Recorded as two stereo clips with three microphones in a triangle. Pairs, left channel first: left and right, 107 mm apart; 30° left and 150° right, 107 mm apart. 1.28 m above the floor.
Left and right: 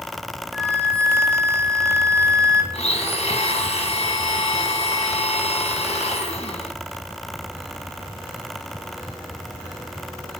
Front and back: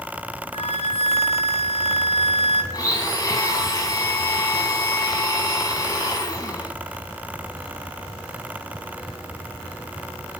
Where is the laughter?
No laughter in this recording.